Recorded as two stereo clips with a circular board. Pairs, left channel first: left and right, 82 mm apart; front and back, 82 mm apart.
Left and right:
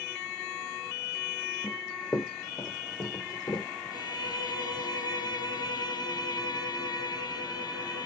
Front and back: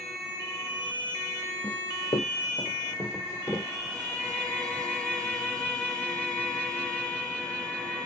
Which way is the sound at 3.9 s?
75° left.